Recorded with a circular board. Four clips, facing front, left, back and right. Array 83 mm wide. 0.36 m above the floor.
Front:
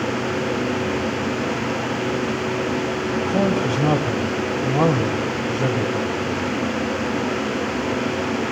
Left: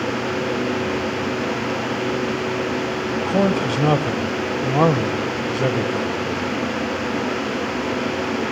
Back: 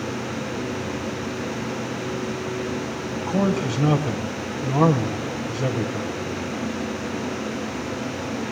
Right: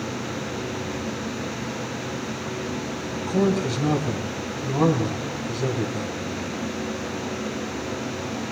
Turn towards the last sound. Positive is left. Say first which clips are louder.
# left 2 dB, front 1 dB
turn(degrees=80)